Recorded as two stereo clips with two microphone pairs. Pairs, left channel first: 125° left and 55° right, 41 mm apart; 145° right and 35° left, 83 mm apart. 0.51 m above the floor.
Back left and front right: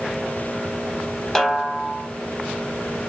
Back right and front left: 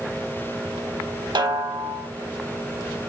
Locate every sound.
1.4 s a snare drum: 45° left, 0.7 m